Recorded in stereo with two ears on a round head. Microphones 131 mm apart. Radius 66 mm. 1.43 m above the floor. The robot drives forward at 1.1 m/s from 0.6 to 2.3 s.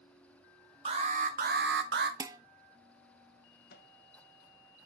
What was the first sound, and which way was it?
An alarm, 40° right (ahead or behind).